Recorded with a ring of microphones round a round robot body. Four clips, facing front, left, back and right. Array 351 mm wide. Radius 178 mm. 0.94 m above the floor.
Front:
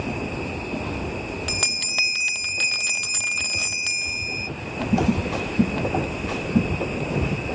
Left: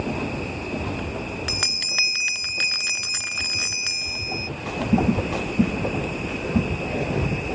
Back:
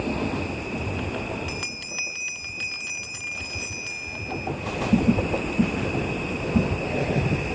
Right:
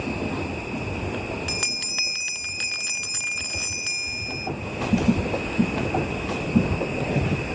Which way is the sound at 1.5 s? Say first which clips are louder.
Left 1 dB, front 3 dB; 20° left.